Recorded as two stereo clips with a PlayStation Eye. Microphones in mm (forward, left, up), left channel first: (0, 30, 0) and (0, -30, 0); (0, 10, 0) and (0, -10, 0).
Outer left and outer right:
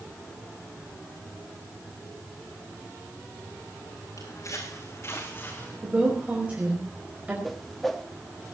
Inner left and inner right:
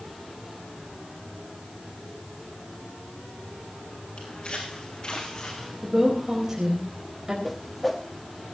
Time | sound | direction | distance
4.2 | footsteps | 65° left (ahead or behind) | 4 m
5.8 | a woman speaking | 20° right (ahead or behind) | 4.5 m
7.4 | a whoosh | centre (ahead or behind) | 1.7 m